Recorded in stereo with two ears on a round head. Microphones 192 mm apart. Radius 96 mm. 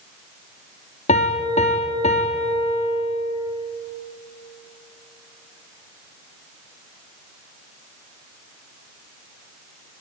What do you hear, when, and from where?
1.1 s a piano: 30° left (ahead or behind), 3 m